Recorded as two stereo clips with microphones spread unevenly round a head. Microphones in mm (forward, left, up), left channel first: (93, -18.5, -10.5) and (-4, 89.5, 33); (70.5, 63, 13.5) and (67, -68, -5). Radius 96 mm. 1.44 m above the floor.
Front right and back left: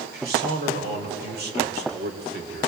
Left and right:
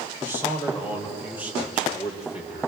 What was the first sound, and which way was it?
A man speaking, 165° left.